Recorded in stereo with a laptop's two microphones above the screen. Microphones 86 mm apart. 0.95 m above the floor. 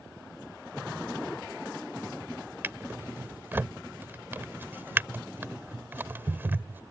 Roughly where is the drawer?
Right.